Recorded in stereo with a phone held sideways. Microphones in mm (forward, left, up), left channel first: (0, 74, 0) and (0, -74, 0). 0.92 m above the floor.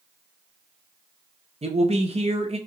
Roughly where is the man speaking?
Right.